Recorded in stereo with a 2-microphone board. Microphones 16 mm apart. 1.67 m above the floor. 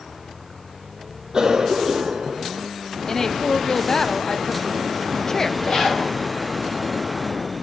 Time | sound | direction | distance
1.3 | a cough | 50° right (ahead or behind) | 0.5 m
3.1 | a woman speaking | 30° left (ahead or behind) | 0.5 m
5.6 | a zipper | 55° left (ahead or behind) | 8.5 m